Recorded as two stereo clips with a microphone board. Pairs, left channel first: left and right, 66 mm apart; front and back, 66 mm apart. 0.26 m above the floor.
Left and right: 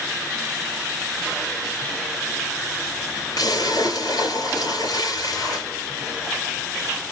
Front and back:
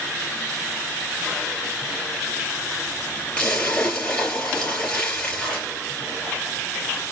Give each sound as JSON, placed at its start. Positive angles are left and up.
{"t": 3.4, "sound": "a splash", "azimuth_deg": 75, "distance_m": 4.0}